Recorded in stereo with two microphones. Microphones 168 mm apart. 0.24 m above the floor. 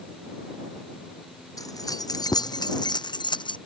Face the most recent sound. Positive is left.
turn(degrees=30)  # may be behind; listen again after turning